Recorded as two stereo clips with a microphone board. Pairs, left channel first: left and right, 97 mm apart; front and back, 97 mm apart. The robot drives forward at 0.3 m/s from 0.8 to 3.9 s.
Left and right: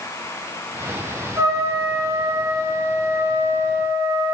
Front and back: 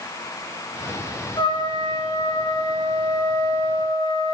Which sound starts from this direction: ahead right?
A trumpet, at 1.4 s.